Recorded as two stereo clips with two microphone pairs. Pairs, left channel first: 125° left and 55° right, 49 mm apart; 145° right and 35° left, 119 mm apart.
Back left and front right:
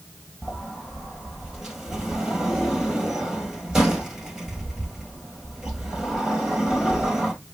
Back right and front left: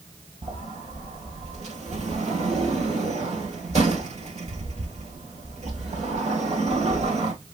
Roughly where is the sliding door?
Ahead left.